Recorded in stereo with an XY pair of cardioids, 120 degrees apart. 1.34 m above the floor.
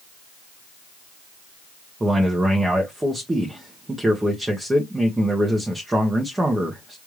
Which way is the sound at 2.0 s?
15° right.